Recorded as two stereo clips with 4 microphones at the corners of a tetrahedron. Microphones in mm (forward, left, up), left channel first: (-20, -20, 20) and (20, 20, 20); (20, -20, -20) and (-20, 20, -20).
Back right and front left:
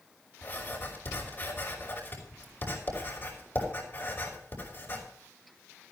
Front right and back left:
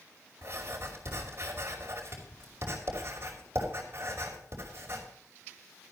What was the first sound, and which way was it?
Writing, 175° left.